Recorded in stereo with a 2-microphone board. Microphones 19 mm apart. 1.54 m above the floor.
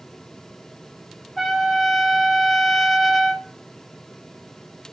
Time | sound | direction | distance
1.4 | a trumpet | 15° left (ahead or behind) | 0.8 m